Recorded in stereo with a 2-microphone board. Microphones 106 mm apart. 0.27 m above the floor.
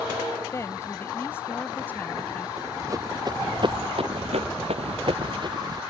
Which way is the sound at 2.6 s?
30° right (ahead or behind).